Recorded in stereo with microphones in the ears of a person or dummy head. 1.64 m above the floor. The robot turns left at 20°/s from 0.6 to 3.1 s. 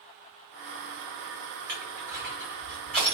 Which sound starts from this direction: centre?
Crushing, at 1.7 s.